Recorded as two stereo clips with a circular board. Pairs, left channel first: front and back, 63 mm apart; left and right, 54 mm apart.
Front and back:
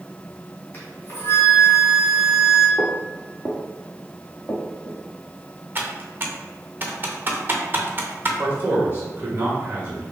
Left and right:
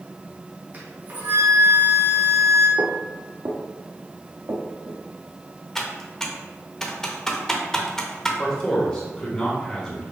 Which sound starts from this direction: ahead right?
A flute, at 0.7 s.